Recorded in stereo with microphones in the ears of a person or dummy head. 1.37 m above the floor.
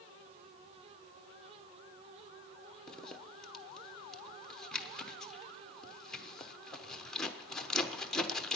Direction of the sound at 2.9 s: 5° left (ahead or behind).